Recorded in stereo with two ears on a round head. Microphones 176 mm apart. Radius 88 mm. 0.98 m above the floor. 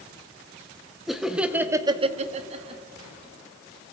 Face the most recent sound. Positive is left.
turn(degrees=-25)  # may be behind; listen again after turning